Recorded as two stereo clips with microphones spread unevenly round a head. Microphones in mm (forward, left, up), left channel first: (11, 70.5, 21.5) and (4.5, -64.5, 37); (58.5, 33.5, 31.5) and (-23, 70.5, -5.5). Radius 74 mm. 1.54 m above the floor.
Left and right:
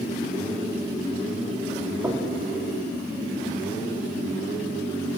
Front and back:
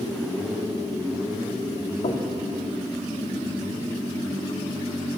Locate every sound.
2.0 s knocking: 20° right, 3 m